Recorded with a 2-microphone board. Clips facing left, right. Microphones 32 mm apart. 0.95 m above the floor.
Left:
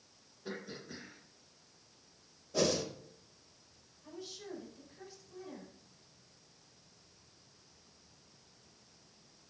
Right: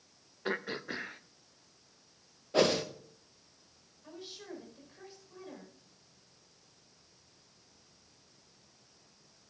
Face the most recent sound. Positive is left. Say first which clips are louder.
# even
turn(degrees=-30)  # may be behind; listen again after turning